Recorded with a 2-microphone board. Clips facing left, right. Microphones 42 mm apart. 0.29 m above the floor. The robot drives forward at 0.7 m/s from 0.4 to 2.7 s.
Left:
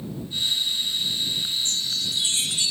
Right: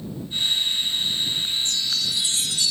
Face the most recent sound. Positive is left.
turn(degrees=30)  # may be behind; listen again after turning